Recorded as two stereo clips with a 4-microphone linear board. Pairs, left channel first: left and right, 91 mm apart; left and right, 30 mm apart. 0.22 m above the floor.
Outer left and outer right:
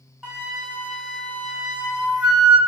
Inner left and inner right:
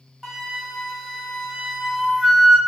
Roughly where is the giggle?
I don't hear a giggle.